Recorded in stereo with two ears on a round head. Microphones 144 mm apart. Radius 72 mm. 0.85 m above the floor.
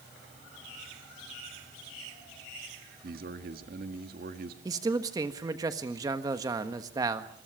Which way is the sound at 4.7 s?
25° right (ahead or behind).